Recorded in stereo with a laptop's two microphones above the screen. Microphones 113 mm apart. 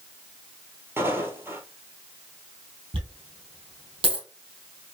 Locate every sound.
1.0 s footsteps: 20° right (ahead or behind), 1.2 m
2.9 s a dropped coin: 45° right (ahead or behind), 2.5 m